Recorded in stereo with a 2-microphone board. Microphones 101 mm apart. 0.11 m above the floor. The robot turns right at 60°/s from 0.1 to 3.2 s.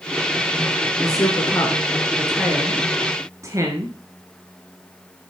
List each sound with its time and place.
1.0 s a woman speaking: 35° left (ahead or behind), 1.8 m; by 4.0 s 30° right (ahead or behind), 1.8 m